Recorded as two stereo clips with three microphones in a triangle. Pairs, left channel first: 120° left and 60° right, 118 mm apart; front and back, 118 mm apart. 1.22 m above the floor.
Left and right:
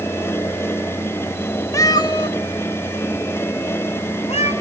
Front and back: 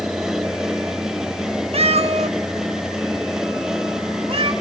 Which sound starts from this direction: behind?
A cat meowing, at 1.7 s.